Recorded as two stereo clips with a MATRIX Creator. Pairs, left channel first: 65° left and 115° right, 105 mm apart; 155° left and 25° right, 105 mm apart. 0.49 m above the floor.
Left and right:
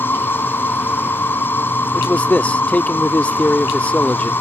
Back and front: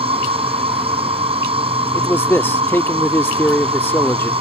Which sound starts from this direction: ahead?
An insect, at 0.0 s.